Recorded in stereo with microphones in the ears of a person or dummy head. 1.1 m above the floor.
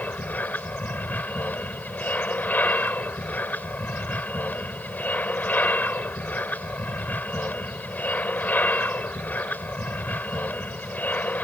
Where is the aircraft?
10° left (ahead or behind).